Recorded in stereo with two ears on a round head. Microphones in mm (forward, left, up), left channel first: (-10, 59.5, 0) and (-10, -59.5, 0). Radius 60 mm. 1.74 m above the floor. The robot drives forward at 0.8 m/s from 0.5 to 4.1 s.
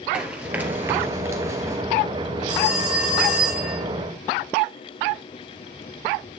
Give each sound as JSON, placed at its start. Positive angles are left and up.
{"t": 0.1, "sound": "running footsteps", "side_deg": -10, "distance_m": 2.0}
{"t": 2.5, "sound": "a phone ringing", "side_deg": -5, "distance_m": 5.5}